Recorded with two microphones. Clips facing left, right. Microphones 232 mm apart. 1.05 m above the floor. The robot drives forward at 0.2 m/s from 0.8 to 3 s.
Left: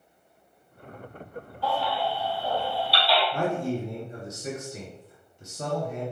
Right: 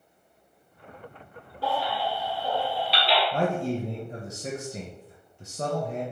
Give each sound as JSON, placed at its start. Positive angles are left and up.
{"t": 1.6, "sound": "a baby crying", "side_deg": -75, "distance_m": 2.0}
{"t": 3.3, "sound": "a man speaking", "side_deg": -55, "distance_m": 0.7}